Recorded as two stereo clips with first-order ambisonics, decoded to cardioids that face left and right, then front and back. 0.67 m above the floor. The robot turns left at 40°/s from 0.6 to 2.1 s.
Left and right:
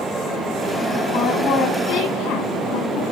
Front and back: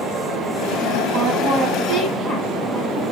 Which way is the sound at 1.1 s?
150° left.